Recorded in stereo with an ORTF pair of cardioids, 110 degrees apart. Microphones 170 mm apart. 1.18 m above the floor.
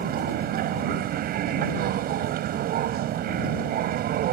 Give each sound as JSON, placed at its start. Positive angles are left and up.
{"t": 0.0, "sound": "a machine running", "azimuth_deg": -65}